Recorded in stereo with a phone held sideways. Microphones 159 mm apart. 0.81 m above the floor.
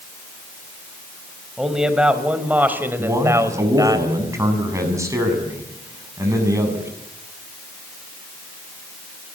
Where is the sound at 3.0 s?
20° right (ahead or behind), 7 m.